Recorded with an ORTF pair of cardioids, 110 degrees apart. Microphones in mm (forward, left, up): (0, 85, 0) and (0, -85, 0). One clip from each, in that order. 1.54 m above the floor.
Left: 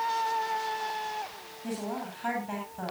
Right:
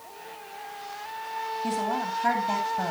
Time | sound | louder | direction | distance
1.6 | a woman speaking | right 6 dB | 35° right | 9.5 m